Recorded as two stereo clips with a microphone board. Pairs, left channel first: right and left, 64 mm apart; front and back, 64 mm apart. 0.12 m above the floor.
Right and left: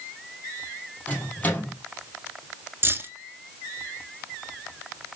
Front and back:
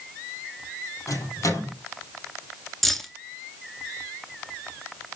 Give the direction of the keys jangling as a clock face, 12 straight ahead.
9 o'clock.